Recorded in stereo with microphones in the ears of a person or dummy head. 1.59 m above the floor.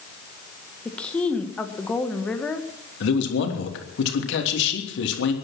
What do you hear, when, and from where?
0.8 s a woman speaking: 10° left (ahead or behind), 1.6 m
3.0 s a man speaking: 70° left (ahead or behind), 3 m